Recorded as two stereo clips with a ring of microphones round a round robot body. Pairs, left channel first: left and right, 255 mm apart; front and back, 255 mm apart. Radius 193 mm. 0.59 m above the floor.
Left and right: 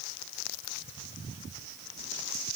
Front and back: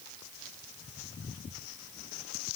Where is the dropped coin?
No dropped coin in this recording.